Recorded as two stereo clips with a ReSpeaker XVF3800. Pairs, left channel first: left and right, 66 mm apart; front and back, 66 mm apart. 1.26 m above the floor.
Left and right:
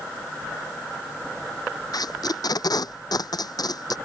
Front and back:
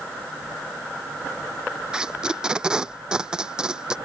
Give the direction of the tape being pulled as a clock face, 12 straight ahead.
9 o'clock.